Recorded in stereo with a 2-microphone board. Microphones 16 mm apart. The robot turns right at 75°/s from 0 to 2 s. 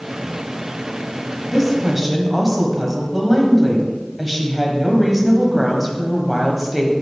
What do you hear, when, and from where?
1.5 s a woman speaking: 175° left, 1.3 m; by 6.9 s 150° right, 1.3 m